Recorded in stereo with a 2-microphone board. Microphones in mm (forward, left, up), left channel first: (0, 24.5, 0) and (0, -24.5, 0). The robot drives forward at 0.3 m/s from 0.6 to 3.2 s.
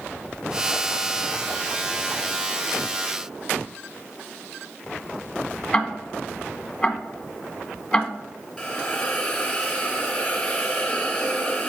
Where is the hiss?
5° left (ahead or behind), 2 m.